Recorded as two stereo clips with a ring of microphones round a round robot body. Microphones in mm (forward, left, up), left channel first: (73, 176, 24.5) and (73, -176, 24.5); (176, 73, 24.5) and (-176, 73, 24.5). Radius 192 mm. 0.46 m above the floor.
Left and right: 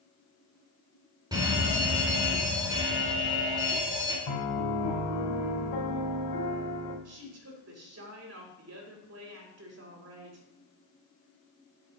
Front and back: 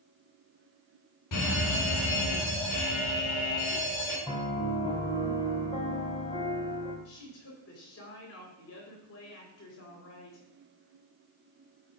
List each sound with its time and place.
1.3 s a fire alarm: 15° right, 2.5 m
4.3 s a piano: 75° left, 3.5 m
7.0 s a woman speaking: 50° right, 2.5 m